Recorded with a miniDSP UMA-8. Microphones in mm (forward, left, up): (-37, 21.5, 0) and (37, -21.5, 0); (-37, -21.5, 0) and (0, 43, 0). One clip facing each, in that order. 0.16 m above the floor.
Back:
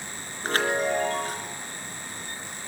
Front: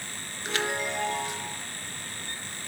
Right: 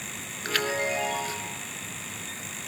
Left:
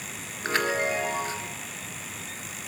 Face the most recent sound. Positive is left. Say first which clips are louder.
# back 6 dB, left 2 dB
turn(degrees=120)